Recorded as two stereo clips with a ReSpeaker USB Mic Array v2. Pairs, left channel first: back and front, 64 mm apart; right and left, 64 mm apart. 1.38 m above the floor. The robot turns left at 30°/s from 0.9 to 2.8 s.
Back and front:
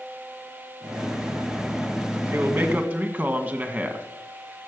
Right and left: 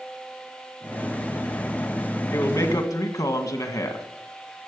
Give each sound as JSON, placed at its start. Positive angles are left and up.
{"t": 2.3, "sound": "a man speaking", "azimuth_deg": -55, "distance_m": 1.8}